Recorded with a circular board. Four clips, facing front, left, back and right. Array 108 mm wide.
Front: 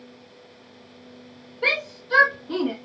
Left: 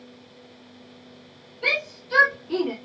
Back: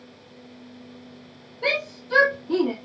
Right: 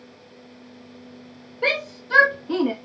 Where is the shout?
75° right, 3 m; by 2.7 s 80° right, 1.6 m.